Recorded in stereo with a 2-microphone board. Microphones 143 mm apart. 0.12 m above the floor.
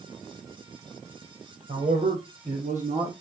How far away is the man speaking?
About 3.5 m.